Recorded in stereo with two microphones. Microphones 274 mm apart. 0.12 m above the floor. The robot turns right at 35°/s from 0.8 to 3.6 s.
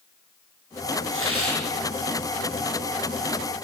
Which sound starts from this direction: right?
A hiss, at 1.1 s.